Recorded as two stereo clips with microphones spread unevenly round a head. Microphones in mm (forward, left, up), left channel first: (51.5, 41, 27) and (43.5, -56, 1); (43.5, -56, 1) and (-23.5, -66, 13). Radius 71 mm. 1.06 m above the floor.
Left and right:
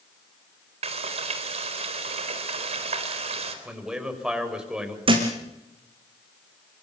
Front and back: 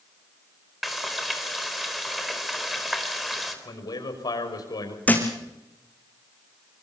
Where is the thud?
60° right, 4.5 m.